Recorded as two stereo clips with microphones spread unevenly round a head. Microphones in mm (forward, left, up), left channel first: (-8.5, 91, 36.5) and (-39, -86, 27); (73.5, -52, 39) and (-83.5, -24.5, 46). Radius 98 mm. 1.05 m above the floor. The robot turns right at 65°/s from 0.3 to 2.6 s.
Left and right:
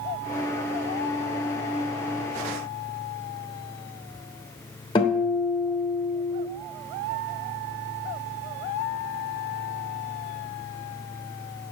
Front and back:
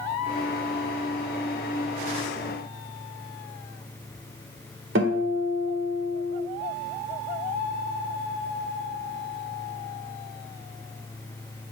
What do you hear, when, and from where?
5.0 s a guitar: 145° left, 1.5 m